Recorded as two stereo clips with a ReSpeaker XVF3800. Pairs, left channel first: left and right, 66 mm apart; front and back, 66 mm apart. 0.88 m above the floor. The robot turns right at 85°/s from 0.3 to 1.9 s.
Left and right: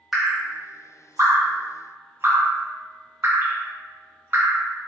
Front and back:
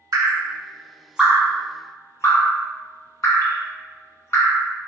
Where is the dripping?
175° right, 0.7 m; by 4.7 s 40° right, 0.7 m.